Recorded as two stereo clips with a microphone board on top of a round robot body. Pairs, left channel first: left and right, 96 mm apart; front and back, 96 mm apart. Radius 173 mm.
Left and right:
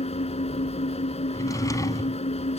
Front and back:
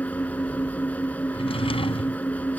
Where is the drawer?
30° left.